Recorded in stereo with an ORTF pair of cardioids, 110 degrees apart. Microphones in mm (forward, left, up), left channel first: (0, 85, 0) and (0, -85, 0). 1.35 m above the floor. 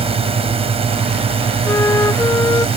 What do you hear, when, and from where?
0.0 s a drone: 35° right
1.6 s a flute: 15° left